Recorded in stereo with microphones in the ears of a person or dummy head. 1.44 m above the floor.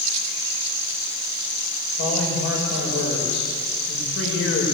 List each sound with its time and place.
2.0 s a man speaking: 75° left (ahead or behind), 7 m